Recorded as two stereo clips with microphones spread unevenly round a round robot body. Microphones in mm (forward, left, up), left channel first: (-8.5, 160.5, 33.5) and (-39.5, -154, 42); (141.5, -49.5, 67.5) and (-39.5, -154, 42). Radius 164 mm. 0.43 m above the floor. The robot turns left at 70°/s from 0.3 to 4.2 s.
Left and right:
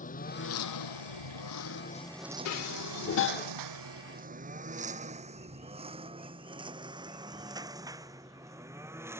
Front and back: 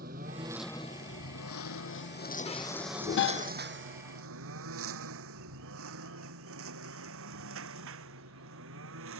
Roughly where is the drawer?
No drawer in this recording.